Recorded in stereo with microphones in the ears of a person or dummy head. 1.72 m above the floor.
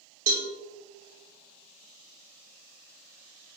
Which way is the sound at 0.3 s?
45° right (ahead or behind).